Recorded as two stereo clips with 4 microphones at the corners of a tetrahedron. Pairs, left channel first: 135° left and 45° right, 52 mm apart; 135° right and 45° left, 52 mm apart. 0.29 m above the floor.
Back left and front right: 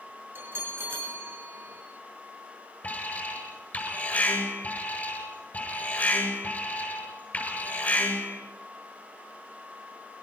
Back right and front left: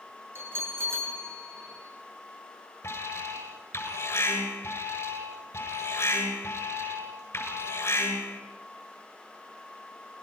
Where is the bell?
Straight ahead, 5 m.